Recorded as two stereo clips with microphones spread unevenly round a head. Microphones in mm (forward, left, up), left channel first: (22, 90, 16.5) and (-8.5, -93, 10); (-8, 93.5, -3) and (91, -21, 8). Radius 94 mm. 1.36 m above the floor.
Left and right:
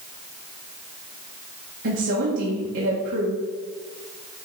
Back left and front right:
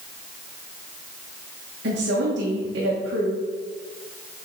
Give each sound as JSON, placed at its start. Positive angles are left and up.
{"t": 1.8, "sound": "a woman speaking", "azimuth_deg": -75, "distance_m": 1.3}